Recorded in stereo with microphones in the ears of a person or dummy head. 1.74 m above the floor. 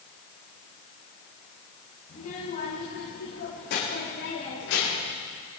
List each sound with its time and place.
2.1 s a child speaking: 35° left (ahead or behind), 5 m; by 5.2 s 75° left (ahead or behind), 5.5 m